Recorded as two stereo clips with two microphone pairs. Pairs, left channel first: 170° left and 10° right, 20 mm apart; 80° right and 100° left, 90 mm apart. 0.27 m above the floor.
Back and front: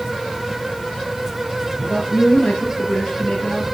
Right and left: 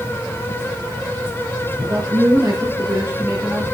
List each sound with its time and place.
1.8 s a man speaking: 145° left, 5.5 m; by 3.6 s 160° left, 5.5 m